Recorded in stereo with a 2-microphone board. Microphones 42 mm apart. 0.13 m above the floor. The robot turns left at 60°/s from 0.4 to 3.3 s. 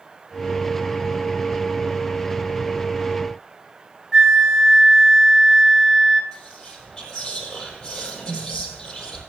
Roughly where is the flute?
Centre.